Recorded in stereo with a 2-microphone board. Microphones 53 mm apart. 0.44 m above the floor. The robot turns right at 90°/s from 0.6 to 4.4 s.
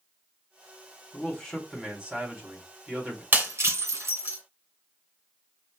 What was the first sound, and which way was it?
A man speaking, 130° left.